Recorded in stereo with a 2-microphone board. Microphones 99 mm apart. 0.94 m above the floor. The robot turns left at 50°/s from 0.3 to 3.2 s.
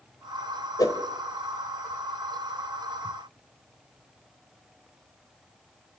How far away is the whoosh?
About 2 m.